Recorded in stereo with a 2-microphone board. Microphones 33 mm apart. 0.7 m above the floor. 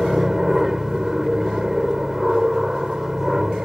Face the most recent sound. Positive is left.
turn(degrees=-10)  # may be behind; listen again after turning